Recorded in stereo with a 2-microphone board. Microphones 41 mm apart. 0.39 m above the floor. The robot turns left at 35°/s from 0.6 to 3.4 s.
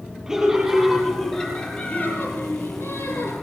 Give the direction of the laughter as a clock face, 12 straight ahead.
6 o'clock.